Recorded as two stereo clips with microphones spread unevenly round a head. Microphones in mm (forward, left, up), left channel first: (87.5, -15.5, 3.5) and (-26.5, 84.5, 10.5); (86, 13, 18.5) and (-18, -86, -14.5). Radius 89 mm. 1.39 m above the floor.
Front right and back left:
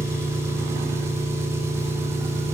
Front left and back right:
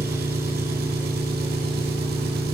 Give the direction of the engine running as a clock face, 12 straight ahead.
5 o'clock.